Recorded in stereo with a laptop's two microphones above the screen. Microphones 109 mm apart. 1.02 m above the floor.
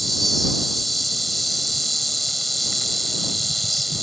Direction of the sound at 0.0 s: Centre (ahead or behind).